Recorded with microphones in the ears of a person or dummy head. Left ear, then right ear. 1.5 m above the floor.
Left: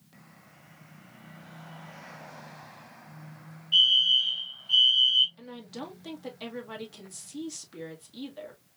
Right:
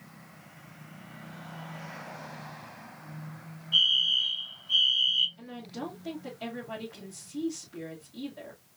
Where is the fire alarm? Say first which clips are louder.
Left 3 dB; 35° left (ahead or behind), 1.6 m.